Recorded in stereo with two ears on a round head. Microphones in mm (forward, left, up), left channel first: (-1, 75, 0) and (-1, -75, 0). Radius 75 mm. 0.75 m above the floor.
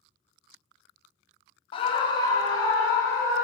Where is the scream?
30° left (ahead or behind), 0.6 m; by 3.4 s 20° left (ahead or behind), 3 m.